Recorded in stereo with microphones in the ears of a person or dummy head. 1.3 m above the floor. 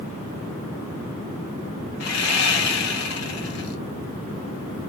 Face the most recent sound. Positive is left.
turn(degrees=60)  # may be behind; listen again after turning